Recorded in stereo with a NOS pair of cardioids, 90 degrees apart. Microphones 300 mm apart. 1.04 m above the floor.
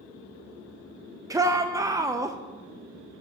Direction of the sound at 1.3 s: 10° right.